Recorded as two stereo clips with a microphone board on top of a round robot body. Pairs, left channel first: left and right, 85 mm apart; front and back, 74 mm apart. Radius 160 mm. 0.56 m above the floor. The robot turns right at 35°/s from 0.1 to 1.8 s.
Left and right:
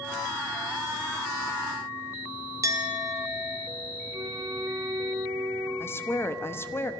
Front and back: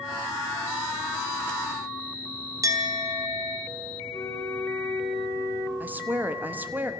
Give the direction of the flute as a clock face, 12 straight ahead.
2 o'clock.